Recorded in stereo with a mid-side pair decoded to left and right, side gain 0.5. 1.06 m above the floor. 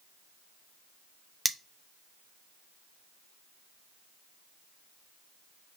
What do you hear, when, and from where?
1.4 s cutlery clinking: 10° right, 0.5 m